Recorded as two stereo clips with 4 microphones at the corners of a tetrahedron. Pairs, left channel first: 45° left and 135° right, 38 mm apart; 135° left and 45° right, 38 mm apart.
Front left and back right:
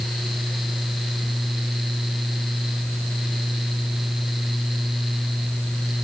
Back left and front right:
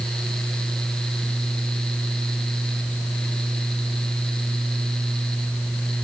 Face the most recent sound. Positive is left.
No sound to turn to.